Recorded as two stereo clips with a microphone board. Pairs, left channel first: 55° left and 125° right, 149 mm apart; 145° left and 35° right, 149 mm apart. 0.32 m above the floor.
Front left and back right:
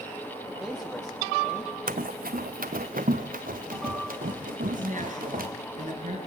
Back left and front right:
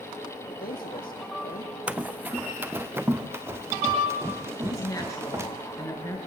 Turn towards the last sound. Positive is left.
turn(degrees=-145)